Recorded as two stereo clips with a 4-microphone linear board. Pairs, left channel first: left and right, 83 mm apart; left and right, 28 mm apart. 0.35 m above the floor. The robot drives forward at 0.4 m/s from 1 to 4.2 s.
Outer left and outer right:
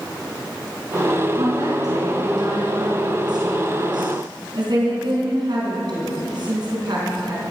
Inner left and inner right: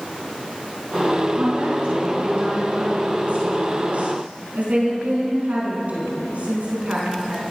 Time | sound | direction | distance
1.4 | a woman speaking | 55° right (ahead or behind) | 4.5 m